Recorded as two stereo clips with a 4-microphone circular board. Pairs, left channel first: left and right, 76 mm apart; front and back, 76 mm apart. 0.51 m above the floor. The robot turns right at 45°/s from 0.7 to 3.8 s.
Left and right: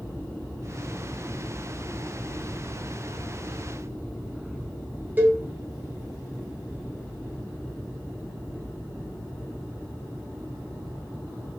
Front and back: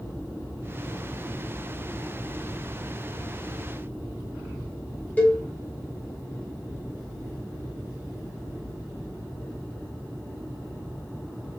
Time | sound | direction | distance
5.2 | a cowbell | 50° right | 0.6 m